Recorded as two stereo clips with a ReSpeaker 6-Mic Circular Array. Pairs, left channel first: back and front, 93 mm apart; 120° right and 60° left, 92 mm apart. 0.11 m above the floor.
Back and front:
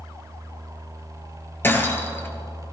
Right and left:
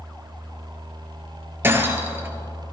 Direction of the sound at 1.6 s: 120° left.